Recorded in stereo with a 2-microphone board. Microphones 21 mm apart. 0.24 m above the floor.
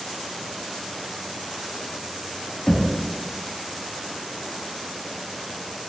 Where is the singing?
I don't hear singing.